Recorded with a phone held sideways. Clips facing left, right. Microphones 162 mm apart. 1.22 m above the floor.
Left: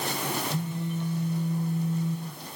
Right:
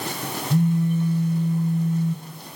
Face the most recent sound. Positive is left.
turn(degrees=-55)  # may be behind; listen again after turning